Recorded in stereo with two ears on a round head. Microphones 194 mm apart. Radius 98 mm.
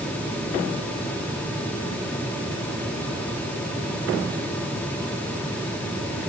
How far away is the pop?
No pop in this recording.